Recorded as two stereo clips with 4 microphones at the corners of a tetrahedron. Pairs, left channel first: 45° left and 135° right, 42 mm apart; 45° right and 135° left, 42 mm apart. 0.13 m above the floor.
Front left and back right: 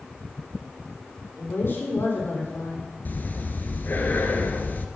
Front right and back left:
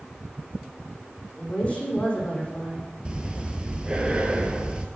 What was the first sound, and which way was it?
A woman speaking, 15° left.